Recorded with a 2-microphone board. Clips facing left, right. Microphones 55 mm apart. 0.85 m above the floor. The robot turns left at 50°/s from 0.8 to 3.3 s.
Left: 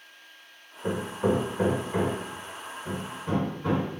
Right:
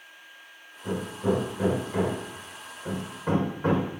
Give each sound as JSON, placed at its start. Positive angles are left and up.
{"t": 0.8, "sound": "hammering", "side_deg": 70, "distance_m": 1.9}